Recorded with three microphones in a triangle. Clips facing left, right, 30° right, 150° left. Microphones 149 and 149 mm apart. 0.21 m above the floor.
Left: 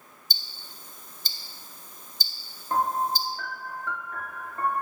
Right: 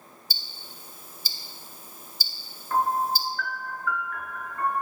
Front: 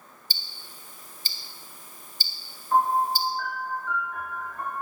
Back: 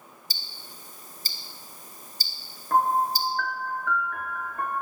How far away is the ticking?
About 0.7 m.